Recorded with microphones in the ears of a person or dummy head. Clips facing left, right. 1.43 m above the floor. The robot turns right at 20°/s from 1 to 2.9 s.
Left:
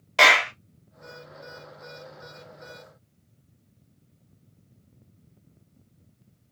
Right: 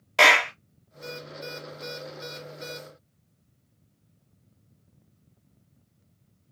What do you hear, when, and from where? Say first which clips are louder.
0.2 s a clap: even; centre (ahead or behind), 0.8 m